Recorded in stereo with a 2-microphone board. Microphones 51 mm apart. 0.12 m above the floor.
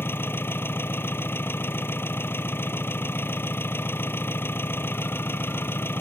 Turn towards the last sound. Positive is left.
turn(degrees=45)  # may be behind; listen again after turning